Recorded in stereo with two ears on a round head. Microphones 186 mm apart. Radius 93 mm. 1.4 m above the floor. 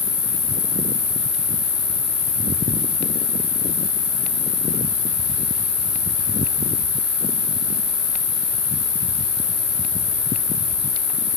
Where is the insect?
45° left (ahead or behind), 1.4 m.